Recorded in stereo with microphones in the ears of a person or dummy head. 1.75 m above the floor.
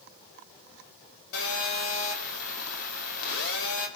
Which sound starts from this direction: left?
A phone buzzing, at 1.3 s.